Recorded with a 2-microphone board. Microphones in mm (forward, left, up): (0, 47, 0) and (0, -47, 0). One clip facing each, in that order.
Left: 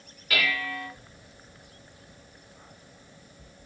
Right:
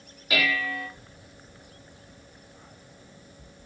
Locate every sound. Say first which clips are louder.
0.3 s dishes clattering: right 2 dB; 20° right (ahead or behind), 2.5 m